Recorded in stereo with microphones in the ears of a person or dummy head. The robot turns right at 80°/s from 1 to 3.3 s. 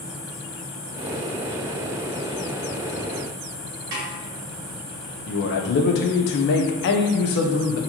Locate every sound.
3.9 s a snare drum: 55° right (ahead or behind), 1.2 m
5.3 s a man speaking: 60° left (ahead or behind), 0.5 m